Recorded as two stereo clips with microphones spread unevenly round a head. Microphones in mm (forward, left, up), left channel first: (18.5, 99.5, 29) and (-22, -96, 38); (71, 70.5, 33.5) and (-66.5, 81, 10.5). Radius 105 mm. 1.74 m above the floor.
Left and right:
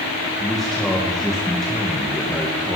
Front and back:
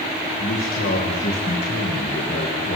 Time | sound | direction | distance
0.4 | a man speaking | 10° right | 2.5 m